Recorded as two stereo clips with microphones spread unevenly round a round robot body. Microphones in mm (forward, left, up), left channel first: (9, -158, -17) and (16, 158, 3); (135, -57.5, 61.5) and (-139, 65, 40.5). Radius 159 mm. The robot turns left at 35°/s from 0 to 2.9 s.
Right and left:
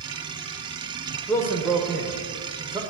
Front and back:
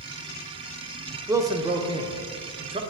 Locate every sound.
1.3 s a man speaking: 150° right, 1.0 m; by 2.8 s 155° left, 1.0 m